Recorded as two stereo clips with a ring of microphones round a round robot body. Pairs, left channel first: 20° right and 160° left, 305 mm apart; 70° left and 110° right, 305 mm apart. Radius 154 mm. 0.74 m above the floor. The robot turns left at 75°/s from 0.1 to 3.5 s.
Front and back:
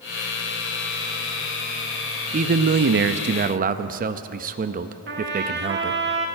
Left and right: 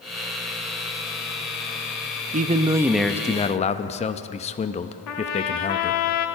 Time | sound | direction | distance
2.3 | a man speaking | 155° right | 0.6 m
5.1 | a trumpet | 100° left | 1.3 m